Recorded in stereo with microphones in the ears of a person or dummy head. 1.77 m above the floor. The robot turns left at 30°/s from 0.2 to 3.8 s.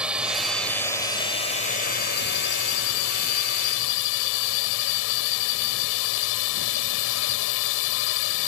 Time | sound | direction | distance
0.0 | a drone | 175° right | ?